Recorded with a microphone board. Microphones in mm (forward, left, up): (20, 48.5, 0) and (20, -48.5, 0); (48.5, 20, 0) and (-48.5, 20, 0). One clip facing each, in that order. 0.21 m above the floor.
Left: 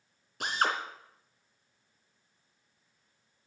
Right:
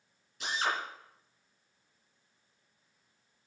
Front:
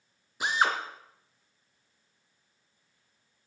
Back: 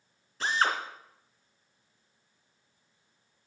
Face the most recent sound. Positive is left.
turn(degrees=75)